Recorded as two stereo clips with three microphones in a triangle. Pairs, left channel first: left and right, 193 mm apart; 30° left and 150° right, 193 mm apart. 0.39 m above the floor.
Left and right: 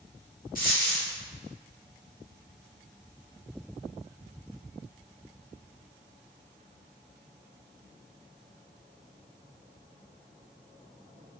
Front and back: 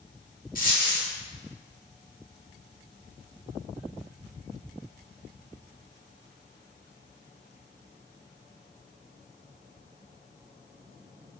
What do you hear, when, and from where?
0.6 s a dropped coin: 60° left, 0.8 m